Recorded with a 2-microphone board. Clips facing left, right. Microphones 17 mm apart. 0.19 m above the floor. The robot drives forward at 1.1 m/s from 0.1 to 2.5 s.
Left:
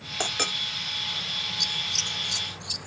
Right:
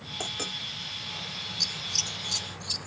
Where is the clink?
35° left (ahead or behind).